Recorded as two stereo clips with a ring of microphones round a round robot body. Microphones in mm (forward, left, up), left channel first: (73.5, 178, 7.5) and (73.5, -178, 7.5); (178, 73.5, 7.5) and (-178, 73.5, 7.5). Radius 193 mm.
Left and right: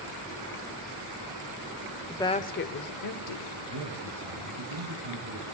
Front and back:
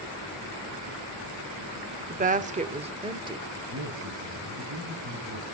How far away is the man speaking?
About 3.5 m.